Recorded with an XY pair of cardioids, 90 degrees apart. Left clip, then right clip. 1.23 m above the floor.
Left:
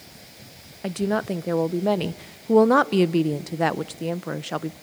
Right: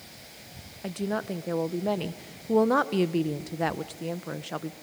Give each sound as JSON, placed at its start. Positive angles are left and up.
{"t": 0.8, "sound": "a woman speaking", "azimuth_deg": 40, "distance_m": 0.7}